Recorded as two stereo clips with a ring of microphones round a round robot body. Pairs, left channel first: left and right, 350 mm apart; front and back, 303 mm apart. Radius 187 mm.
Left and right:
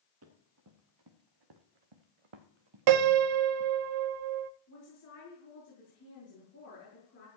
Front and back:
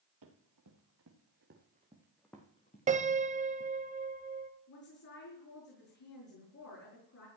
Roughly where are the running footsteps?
Behind right.